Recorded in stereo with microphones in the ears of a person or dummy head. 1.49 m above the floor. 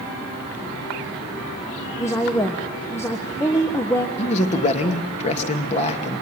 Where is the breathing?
No breathing in this recording.